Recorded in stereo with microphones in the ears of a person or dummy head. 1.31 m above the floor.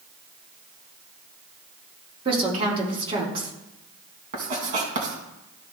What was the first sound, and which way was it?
A woman speaking, 30° right (ahead or behind).